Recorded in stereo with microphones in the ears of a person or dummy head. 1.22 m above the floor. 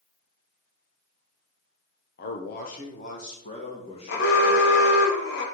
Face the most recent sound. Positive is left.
turn(degrees=70)  # may be behind; listen again after turning